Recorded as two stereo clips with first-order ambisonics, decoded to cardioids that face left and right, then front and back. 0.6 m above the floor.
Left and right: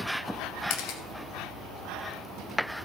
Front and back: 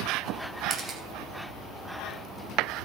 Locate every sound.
0.7 s a camera shutter: 105° left, 2 m